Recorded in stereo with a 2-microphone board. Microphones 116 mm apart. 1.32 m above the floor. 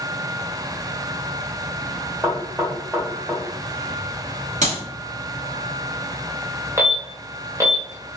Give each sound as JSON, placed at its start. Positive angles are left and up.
{"t": 2.2, "sound": "knocking", "side_deg": -20, "distance_m": 1.1}
{"t": 4.6, "sound": "a clap", "side_deg": -85, "distance_m": 1.5}
{"t": 6.8, "sound": "an alarm", "side_deg": -25, "distance_m": 0.8}